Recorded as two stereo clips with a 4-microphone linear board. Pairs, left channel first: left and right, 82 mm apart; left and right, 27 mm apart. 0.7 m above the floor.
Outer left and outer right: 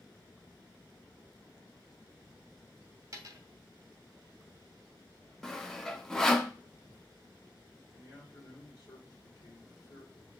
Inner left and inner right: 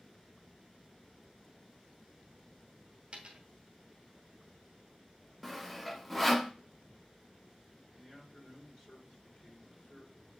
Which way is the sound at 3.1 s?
45° right (ahead or behind).